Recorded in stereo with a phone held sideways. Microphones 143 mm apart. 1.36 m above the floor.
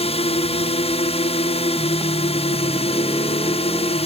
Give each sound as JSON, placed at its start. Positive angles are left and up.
{"t": 0.0, "sound": "a drone", "side_deg": 45}